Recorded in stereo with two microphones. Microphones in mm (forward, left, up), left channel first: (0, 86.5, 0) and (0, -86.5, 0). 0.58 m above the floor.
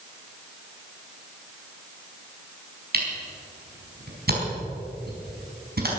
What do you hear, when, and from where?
2.9 s a camera shutter: 65° right (ahead or behind), 4.5 m